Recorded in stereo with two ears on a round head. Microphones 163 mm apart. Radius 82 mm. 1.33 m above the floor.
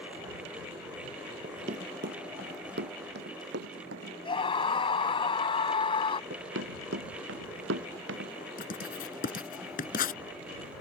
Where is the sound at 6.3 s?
85° right; by 8.3 s 80° right.